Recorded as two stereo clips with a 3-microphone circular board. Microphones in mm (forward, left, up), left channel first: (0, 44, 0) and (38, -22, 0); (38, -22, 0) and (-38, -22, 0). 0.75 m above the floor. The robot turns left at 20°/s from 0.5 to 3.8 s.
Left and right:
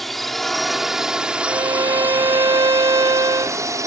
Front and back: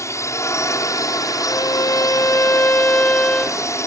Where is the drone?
30° left; by 3.9 s 35° right.